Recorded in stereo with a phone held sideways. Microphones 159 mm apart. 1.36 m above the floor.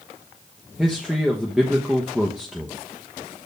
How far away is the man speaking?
About 0.9 m.